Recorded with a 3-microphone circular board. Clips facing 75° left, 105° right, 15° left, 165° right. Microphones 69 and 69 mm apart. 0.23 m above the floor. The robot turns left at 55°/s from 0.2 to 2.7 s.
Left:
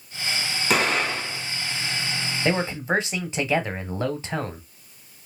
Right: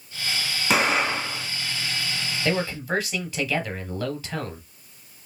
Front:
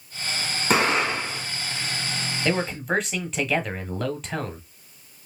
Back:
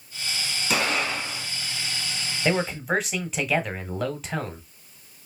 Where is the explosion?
20° right, 2 m; by 1.5 s 60° right, 2 m.